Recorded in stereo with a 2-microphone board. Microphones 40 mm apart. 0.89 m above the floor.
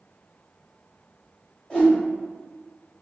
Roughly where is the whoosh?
Left.